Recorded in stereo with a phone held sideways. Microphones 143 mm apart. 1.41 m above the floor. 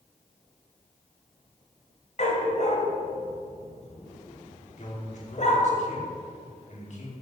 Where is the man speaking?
55° left (ahead or behind), 4.5 m.